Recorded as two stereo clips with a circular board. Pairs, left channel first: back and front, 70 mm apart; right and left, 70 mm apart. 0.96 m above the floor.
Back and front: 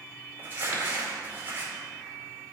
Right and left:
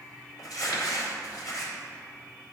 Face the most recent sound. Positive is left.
turn(degrees=-60)